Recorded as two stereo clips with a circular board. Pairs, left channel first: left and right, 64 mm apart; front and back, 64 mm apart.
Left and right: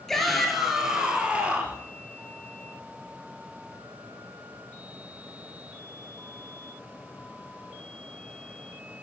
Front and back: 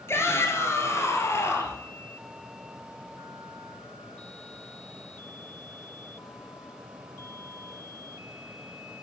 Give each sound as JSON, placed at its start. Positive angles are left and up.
{"t": 0.1, "sound": "a shout", "azimuth_deg": 10, "distance_m": 1.7}